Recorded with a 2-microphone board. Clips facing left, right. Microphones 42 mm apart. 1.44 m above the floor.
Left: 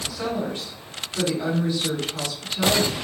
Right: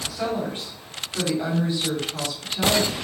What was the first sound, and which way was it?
A woman speaking, 25° right (ahead or behind).